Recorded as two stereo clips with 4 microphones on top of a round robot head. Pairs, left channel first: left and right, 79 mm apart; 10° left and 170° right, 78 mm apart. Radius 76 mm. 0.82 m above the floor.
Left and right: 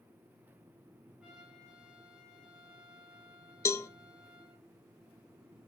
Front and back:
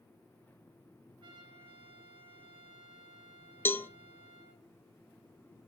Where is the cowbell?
60° left, 0.8 m.